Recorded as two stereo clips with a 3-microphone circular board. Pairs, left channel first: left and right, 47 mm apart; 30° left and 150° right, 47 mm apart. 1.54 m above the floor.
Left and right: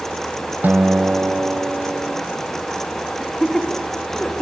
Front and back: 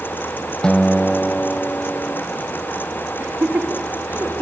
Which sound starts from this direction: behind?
Laughter, at 3.2 s.